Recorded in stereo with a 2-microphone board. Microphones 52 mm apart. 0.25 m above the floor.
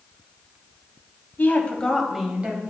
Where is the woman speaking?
40° left (ahead or behind), 1.3 m; by 2.7 s 40° right (ahead or behind), 1.2 m.